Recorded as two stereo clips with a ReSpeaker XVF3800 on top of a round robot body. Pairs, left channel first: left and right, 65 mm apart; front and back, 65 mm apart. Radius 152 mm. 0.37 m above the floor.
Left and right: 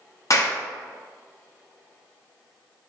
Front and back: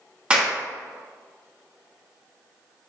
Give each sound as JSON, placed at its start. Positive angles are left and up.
{"t": 0.3, "sound": "a clap", "azimuth_deg": 110, "distance_m": 0.9}